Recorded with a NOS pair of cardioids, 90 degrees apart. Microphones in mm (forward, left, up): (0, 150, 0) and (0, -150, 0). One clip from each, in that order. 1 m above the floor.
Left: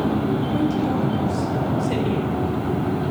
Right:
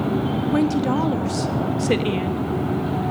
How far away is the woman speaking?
About 1.2 m.